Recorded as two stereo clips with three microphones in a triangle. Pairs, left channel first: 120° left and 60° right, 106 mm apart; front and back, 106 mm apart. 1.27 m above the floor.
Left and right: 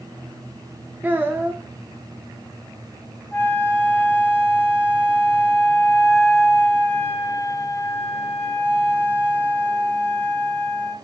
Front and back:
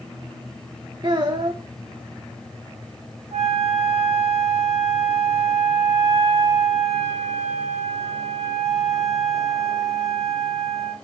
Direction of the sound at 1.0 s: 130° right.